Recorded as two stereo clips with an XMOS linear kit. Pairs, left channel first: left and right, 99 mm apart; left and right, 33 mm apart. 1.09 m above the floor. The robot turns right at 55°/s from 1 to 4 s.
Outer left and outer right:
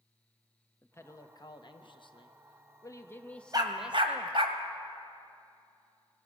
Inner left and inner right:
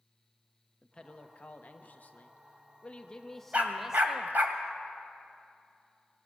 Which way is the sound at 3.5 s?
40° right (ahead or behind).